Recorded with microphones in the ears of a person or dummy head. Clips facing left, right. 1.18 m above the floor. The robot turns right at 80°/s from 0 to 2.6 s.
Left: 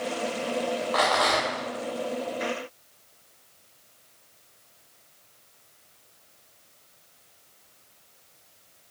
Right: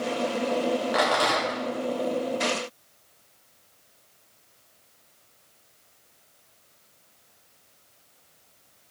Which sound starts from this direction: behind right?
A rattle, at 0.9 s.